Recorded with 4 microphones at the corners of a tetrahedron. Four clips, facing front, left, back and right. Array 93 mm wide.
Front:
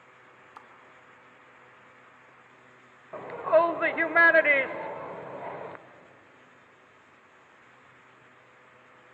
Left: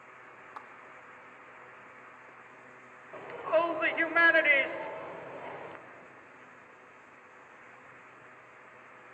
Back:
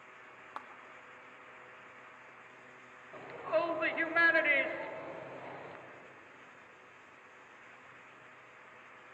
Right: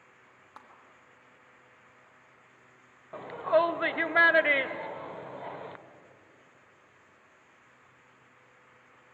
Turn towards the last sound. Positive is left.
turn(degrees=-20)